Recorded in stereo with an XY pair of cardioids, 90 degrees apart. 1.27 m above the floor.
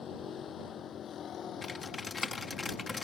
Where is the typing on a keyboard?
35° left.